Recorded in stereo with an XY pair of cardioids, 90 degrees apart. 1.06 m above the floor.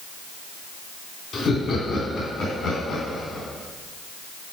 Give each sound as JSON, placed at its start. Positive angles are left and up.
{"t": 1.3, "sound": "laughter", "azimuth_deg": 60, "distance_m": 3.0}